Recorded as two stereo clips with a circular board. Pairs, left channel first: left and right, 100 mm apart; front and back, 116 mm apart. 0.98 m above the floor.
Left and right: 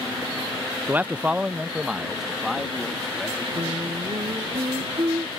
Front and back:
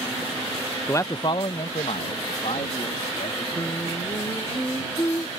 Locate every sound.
0.9 s a man speaking: 40° right; by 3.5 s straight ahead
3.5 s singing: 60° right